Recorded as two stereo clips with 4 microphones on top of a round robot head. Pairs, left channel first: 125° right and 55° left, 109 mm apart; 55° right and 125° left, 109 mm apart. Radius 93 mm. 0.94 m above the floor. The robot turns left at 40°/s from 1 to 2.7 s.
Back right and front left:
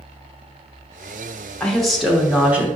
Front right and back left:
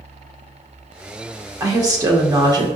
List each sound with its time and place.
1.6 s a woman speaking: 160° left, 0.7 m; by 2.7 s 115° left, 0.7 m